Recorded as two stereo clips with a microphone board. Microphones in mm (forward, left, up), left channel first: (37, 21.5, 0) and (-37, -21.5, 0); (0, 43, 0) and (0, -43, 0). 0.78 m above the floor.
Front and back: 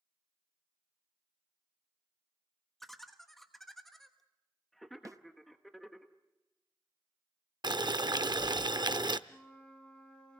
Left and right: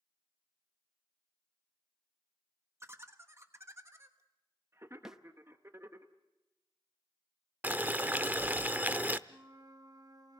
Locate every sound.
2.8 s laughter: 55° right, 1.2 m
5.0 s a snare drum: 170° right, 0.7 m
7.6 s boiling: 155° right, 0.6 m
9.3 s a flute: 45° right, 1.8 m